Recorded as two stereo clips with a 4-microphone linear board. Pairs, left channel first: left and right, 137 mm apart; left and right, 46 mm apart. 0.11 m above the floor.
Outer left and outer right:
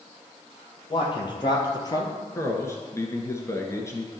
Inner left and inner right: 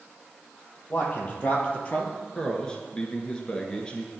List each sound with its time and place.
0.9 s a man speaking: 35° left (ahead or behind), 2.5 m; by 2.1 s 25° left (ahead or behind), 1.8 m
2.4 s a man speaking: 20° left (ahead or behind), 1.4 m